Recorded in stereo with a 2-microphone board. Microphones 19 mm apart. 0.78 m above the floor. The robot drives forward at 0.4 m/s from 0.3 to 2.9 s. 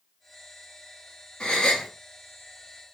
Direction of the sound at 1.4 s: 55° left (ahead or behind).